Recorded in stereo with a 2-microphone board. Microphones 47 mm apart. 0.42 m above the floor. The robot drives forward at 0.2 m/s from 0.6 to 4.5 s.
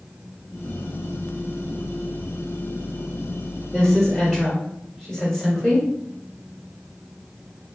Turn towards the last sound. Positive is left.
turn(degrees=5)  # may be behind; listen again after turning